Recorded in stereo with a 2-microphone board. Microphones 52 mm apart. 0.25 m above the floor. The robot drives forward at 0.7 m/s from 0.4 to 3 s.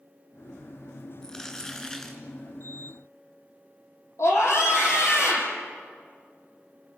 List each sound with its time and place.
1.2 s crumpling: 15° left (ahead or behind), 3 m
4.2 s a scream: 60° left (ahead or behind), 7.5 m